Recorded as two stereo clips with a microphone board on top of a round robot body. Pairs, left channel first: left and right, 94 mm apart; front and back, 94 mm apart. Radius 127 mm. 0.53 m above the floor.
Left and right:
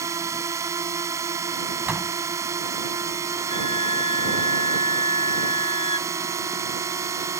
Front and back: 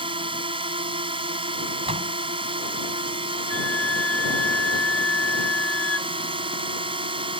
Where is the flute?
75° left.